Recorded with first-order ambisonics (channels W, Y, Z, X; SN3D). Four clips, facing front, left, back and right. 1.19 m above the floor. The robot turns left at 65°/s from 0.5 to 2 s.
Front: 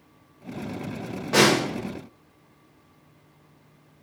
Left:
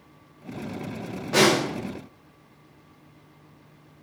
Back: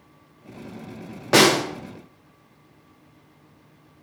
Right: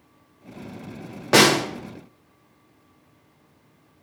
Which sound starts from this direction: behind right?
A snare drum, at 1.3 s.